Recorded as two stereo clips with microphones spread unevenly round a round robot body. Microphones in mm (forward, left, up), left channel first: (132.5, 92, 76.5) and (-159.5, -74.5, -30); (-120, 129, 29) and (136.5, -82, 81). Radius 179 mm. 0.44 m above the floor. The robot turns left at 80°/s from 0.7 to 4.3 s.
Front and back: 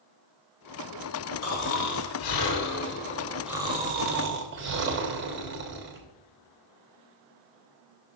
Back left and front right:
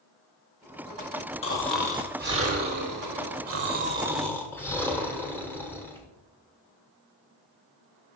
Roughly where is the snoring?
Left.